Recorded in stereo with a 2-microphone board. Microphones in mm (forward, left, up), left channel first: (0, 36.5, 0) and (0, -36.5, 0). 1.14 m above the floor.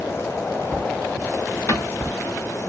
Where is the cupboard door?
45° left (ahead or behind), 2 m.